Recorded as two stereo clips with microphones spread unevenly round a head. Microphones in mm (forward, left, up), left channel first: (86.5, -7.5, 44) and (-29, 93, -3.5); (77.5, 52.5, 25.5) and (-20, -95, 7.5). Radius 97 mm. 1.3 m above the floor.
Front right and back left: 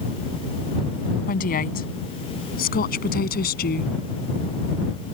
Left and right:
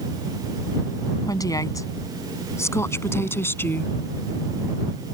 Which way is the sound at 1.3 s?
15° right.